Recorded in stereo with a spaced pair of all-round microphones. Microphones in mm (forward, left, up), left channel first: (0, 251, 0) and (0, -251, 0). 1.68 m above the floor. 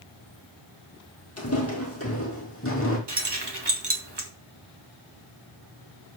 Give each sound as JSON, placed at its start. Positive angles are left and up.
{"t": 1.4, "sound": "footsteps", "side_deg": 30, "distance_m": 3.0}
{"t": 3.1, "sound": "keys jangling", "side_deg": -50, "distance_m": 1.7}